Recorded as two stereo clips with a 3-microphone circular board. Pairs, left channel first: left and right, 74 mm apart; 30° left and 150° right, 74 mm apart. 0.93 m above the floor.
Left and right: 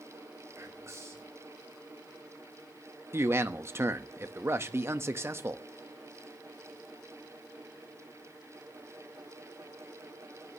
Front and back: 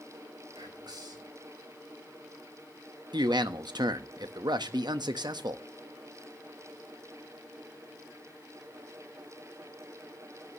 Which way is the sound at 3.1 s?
145° right.